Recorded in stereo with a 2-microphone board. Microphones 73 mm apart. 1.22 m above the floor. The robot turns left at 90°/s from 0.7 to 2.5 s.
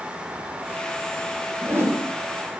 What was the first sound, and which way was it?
A whoosh, 20° right.